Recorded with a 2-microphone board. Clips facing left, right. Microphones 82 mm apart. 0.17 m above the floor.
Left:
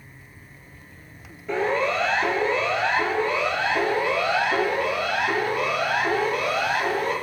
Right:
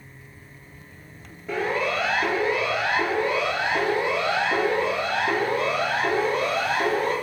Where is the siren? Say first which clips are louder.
Left 2 dB; 5° right (ahead or behind), 4 m; by 7.1 s 35° right (ahead or behind), 5.5 m.